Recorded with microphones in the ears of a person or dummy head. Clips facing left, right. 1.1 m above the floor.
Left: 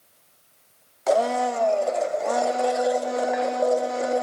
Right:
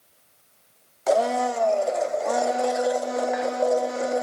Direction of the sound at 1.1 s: Centre (ahead or behind).